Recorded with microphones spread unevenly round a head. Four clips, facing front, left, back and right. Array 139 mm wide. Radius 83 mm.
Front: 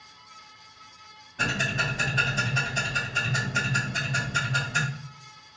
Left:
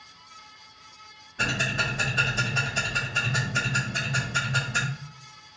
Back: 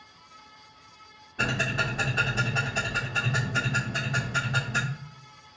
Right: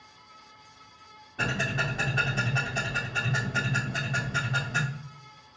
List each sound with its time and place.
1.4 s ticking: 125° right, 2.5 m